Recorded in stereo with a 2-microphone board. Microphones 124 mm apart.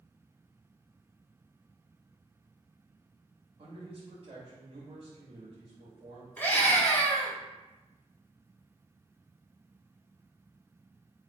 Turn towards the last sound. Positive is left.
turn(degrees=15)  # may be behind; listen again after turning